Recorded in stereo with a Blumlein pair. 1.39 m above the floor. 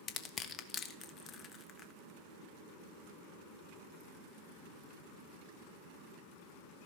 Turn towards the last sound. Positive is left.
turn(degrees=25)